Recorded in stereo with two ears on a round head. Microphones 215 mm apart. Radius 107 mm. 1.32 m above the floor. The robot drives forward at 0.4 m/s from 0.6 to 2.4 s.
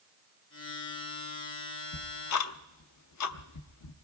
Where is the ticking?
75° left (ahead or behind), 0.7 m; by 4.0 s 80° left, 0.7 m.